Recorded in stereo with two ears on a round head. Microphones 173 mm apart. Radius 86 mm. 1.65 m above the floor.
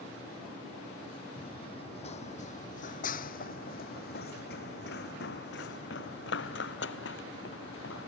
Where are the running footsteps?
25° left (ahead or behind); by 8.1 s 70° left (ahead or behind).